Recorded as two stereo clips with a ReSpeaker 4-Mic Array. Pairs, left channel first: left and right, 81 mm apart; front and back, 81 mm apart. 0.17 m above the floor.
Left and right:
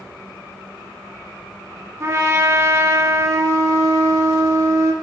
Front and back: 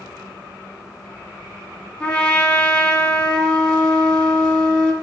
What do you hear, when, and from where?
2.0 s a trumpet: 65° right, 0.5 m